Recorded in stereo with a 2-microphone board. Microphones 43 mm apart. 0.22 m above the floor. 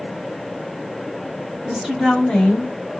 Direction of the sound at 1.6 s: 20° right (ahead or behind).